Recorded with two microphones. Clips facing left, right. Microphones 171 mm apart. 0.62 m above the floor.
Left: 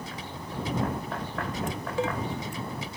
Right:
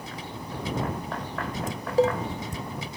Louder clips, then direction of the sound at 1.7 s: Right 10 dB; 40° right (ahead or behind).